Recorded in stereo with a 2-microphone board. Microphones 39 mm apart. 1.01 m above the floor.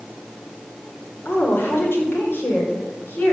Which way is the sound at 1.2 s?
80° left.